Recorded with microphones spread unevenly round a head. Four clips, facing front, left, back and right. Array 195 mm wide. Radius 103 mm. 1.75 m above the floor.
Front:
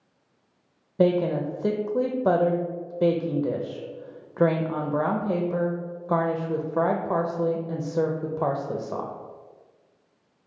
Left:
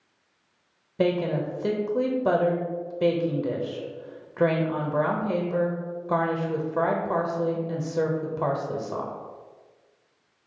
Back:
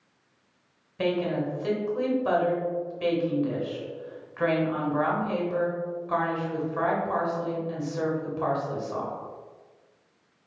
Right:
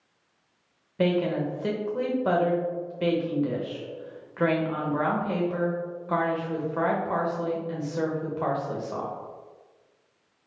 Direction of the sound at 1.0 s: 20° left.